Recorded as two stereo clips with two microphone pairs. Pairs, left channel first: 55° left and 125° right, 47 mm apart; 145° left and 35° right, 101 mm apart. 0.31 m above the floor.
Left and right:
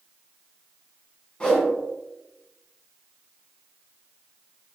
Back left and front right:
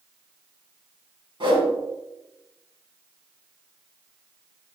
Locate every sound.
1.4 s a whoosh: 10° right, 3 m